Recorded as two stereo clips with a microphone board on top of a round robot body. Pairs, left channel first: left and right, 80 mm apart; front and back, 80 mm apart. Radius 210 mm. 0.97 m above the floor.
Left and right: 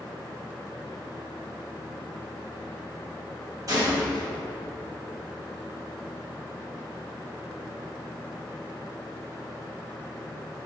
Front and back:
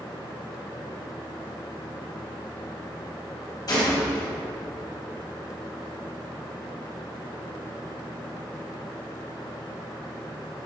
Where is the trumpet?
I don't hear a trumpet.